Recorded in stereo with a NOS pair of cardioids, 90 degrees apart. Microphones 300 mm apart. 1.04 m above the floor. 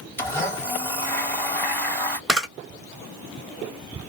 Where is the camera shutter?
Straight ahead, 1.0 m.